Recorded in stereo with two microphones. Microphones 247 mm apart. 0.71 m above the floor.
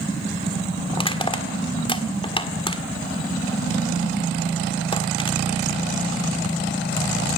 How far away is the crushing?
About 1.6 m.